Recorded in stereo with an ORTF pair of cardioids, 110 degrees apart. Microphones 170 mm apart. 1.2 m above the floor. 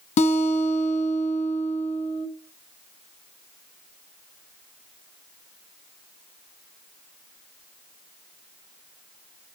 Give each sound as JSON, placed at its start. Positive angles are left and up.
{"t": 0.2, "sound": "a guitar", "azimuth_deg": 40, "distance_m": 2.5}